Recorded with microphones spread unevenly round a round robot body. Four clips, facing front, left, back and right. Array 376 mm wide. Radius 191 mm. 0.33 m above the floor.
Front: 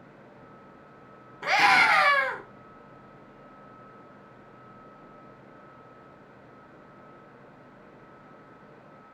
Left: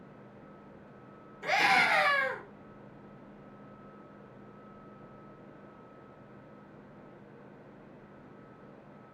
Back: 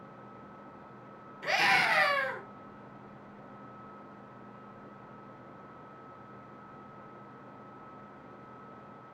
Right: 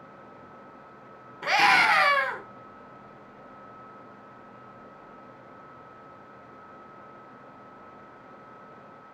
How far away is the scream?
About 4.5 m.